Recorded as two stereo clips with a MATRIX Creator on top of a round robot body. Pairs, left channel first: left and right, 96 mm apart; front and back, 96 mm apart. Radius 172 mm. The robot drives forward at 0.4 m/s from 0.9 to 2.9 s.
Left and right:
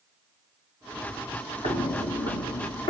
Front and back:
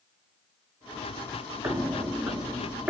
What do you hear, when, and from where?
1.6 s footsteps: 120° left, 0.6 m; by 2.9 s 105° left, 1.0 m